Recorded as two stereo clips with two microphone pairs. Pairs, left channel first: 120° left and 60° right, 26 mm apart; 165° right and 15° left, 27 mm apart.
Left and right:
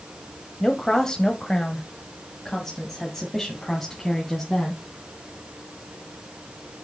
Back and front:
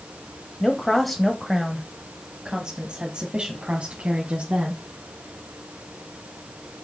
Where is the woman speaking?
135° left, 1.3 m; by 4.8 s 45° left, 2.5 m.